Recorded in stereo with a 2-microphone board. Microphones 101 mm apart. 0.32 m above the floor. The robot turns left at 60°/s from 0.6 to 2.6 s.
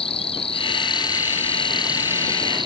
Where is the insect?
70° left; by 2.7 s 50° right.